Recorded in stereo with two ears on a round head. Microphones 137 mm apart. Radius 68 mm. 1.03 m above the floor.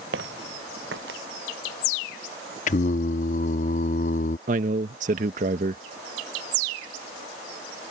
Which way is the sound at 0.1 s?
80° right.